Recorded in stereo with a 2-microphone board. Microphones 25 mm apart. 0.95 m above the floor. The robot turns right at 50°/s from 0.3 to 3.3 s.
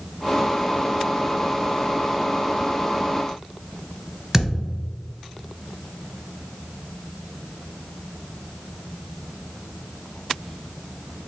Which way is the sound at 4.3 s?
20° right (ahead or behind).